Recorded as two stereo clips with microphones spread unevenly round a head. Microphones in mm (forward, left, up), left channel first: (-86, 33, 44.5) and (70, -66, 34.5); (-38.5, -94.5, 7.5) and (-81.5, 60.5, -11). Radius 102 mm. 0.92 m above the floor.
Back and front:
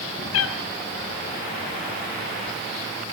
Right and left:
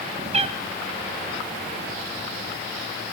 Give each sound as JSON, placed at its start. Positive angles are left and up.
{"t": 0.3, "sound": "a cat meowing", "azimuth_deg": 155, "distance_m": 3.0}